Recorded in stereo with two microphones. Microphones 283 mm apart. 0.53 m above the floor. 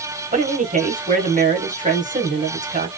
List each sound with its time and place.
0.3 s a man speaking: 25° right (ahead or behind), 1.1 m